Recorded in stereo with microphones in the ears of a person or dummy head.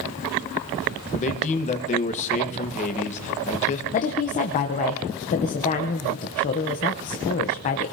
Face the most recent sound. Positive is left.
turn(degrees=35)  # may be behind; listen again after turning